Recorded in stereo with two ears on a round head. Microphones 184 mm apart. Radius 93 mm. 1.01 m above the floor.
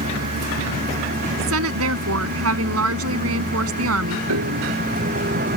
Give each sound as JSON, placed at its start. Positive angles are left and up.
{"t": 0.0, "sound": "a vehicle", "side_deg": -45}
{"t": 1.4, "sound": "a woman speaking", "side_deg": -85}
{"t": 4.3, "sound": "a piano", "side_deg": -85}